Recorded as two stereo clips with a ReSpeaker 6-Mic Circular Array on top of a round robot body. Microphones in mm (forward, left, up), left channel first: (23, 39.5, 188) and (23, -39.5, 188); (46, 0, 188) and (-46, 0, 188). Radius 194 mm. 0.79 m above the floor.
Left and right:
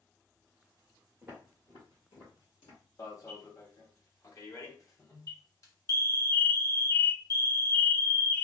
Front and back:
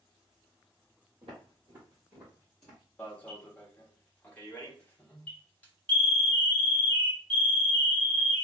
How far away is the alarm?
About 1.2 m.